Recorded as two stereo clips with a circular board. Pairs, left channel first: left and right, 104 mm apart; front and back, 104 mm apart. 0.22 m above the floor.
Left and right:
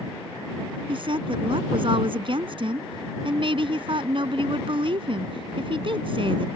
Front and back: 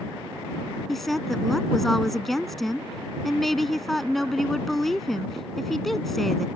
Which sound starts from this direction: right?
A woman speaking, at 0.9 s.